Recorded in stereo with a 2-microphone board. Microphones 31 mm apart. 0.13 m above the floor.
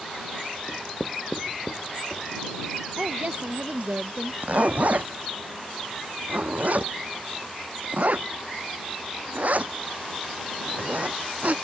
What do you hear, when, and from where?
0.7 s writing: 30° left (ahead or behind)
3.0 s a woman speaking: 55° right (ahead or behind)
4.4 s a zipper: 60° right (ahead or behind)